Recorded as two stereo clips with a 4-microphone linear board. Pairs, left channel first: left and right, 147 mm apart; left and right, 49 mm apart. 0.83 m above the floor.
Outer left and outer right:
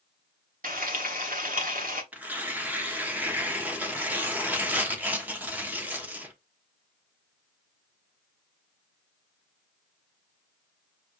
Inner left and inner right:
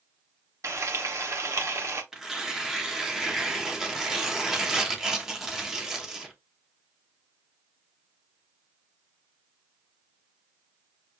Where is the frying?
65° right (ahead or behind), 1.1 m.